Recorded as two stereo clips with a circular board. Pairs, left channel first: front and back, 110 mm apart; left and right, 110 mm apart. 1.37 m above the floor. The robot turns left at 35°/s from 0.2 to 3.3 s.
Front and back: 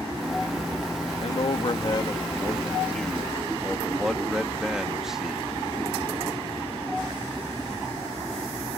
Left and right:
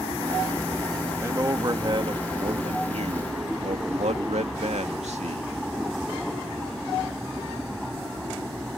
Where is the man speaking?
20° right; by 5.5 s 95° right.